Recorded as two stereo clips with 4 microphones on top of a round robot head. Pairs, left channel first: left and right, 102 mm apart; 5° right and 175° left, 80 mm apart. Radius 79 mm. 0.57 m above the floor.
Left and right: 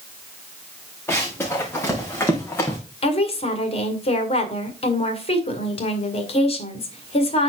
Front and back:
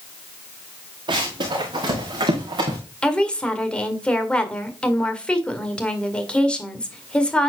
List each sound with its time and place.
1.1 s running footsteps: 160° left, 3.5 m; by 2.8 s 155° left, 3 m
3.0 s a woman speaking: 75° left, 2.0 m